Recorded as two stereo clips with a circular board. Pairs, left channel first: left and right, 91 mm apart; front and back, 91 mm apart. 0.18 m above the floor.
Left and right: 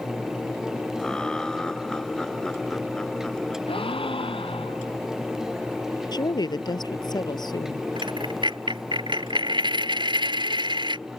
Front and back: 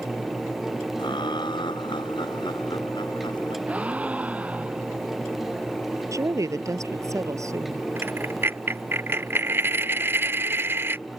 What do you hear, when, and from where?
1.0 s laughter: 10° left
3.7 s a gasp: 105° left
6.1 s a woman speaking: 125° left
8.0 s a dropped coin: 115° right